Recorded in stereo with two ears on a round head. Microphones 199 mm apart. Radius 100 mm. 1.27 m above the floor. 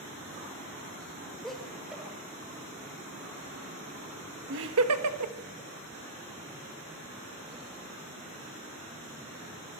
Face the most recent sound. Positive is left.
turn(degrees=-85)